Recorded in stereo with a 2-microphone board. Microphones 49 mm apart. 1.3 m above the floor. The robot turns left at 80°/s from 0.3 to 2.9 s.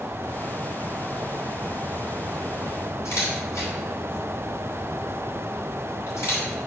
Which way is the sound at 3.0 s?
65° left (ahead or behind).